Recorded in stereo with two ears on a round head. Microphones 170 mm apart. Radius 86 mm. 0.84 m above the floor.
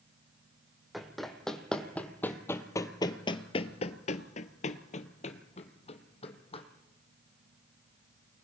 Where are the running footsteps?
Centre (ahead or behind), 2 m; by 6.7 s 30° left (ahead or behind), 2 m.